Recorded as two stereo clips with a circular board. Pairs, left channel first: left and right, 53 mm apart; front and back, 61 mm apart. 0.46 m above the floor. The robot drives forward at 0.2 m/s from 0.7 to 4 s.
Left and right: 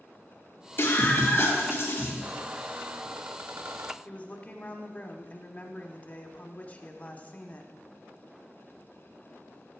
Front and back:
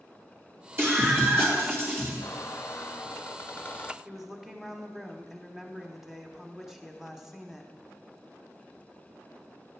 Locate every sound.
0.8 s a scream: 130° left, 3 m; by 2.1 s 135° left, 3 m
2.2 s a squeak: 35° right, 0.7 m; by 4.0 s 60° right, 0.5 m
4.0 s a woman speaking: 100° left, 1.0 m